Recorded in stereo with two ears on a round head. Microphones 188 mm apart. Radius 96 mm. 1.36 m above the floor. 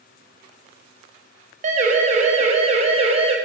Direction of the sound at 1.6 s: 35° right (ahead or behind).